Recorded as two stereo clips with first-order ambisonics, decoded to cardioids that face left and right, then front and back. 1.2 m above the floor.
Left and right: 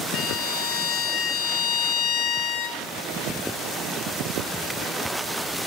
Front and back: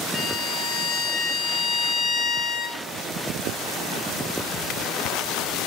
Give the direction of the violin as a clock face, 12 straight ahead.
10 o'clock.